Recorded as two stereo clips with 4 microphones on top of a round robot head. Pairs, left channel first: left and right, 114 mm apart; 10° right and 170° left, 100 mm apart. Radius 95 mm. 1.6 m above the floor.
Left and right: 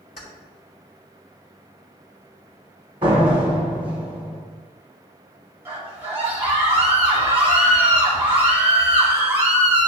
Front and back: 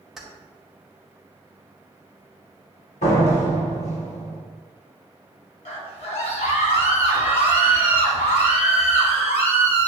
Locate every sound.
0.2 s keys jangling: 85° left, 2 m
3.0 s a door slam: 30° right, 1.1 m
5.7 s a scream: 15° right, 3 m